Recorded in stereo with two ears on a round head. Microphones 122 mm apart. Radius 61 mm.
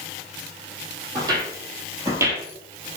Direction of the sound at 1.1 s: 30° right (ahead or behind).